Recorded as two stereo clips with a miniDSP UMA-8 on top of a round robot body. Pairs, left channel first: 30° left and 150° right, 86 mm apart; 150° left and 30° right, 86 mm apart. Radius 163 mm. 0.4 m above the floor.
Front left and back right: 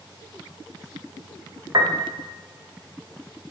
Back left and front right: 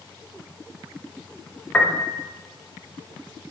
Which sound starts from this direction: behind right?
A piano, at 1.7 s.